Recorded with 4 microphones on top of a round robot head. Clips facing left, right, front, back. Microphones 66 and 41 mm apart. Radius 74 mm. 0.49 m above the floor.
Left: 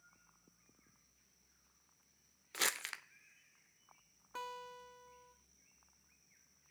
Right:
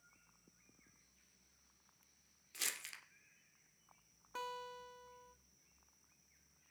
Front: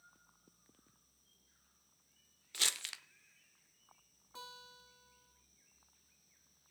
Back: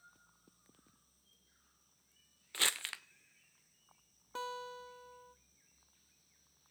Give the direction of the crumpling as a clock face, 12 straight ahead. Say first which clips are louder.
Left 9 dB, back 3 dB; 8 o'clock.